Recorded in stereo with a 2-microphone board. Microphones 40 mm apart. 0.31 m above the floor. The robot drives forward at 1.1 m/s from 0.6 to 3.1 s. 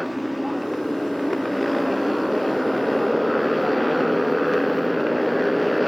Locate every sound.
0.0 s a motorcycle: centre (ahead or behind)